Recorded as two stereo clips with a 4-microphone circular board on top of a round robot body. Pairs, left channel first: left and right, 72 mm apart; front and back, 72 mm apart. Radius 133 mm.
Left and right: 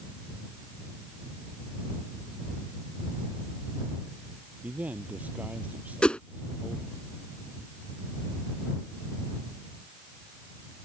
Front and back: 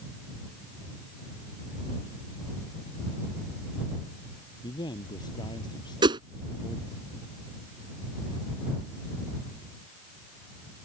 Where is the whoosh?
170° left.